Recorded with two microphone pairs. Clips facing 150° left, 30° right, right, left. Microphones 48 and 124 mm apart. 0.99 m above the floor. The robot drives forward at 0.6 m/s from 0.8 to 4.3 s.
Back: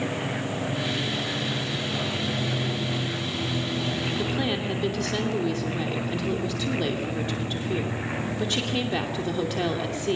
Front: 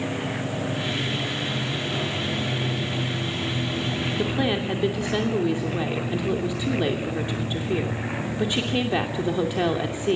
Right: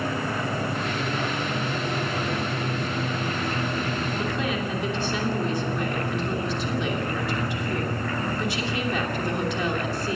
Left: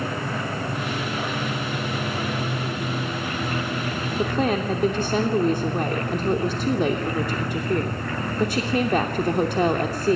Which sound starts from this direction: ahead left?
A woman speaking, at 4.2 s.